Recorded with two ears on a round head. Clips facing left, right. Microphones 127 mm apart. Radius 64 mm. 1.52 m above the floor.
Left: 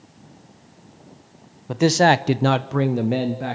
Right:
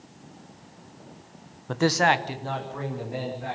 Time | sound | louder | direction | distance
1.7 | a man speaking | left 6 dB | 10° left (ahead or behind) | 1.2 m